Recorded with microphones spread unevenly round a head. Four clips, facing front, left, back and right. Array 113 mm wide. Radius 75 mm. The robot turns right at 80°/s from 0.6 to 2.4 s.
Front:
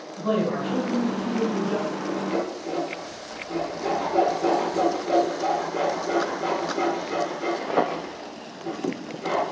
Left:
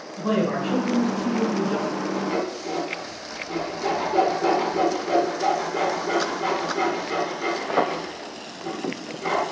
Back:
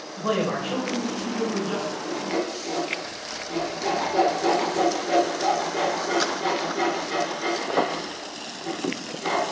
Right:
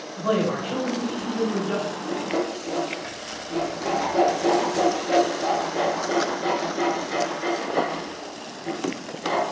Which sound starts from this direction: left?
Sawing, at 2.1 s.